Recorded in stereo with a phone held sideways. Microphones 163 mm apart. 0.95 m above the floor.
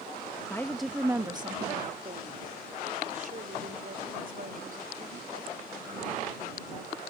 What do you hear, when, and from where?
0.5 s a woman speaking: 15° left (ahead or behind); by 6.9 s 65° right (ahead or behind)